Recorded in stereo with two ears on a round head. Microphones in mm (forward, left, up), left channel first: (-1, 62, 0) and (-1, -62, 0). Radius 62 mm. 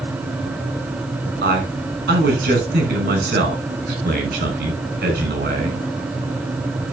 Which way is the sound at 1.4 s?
70° right (ahead or behind).